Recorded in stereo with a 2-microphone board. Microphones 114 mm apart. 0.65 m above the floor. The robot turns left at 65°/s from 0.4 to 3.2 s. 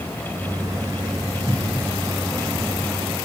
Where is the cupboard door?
5° right (ahead or behind), 3.5 m; by 1.9 s 20° left (ahead or behind), 3.5 m.